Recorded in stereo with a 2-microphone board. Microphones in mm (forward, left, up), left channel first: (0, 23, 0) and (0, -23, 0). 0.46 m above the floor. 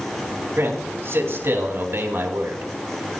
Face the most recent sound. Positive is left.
turn(degrees=-65)  # may be behind; listen again after turning